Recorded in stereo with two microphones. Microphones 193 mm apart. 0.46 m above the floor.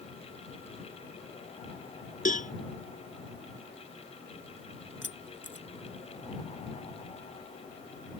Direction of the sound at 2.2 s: 45° left (ahead or behind).